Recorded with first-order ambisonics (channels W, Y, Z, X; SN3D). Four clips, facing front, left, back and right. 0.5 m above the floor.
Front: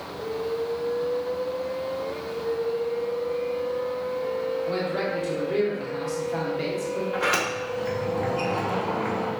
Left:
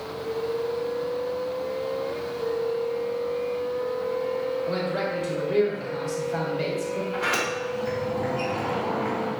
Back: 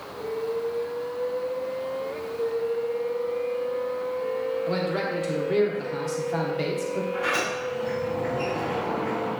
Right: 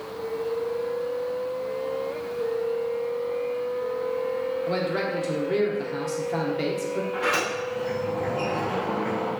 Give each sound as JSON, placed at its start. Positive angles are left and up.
{"t": 4.7, "sound": "a man speaking", "azimuth_deg": -130, "distance_m": 0.8}
{"t": 7.1, "sound": "a sliding door", "azimuth_deg": 10, "distance_m": 1.4}